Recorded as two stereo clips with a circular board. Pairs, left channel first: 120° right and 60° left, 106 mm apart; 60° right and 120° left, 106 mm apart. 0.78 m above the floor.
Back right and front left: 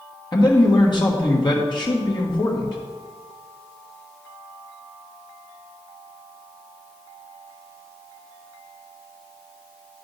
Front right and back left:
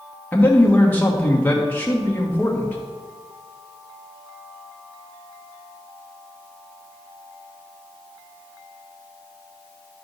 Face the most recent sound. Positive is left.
turn(degrees=-130)